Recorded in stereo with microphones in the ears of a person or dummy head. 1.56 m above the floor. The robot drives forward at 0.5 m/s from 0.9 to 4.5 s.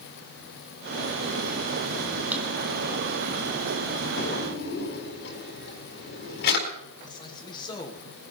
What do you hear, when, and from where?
2.3 s a drawer: 15° right (ahead or behind), 1.7 m
4.2 s a drawer: 55° left (ahead or behind), 4 m
7.0 s a man speaking: 20° left (ahead or behind), 2.5 m